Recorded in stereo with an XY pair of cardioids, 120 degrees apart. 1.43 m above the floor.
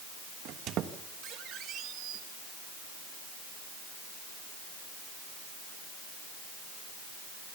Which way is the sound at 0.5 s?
70° right.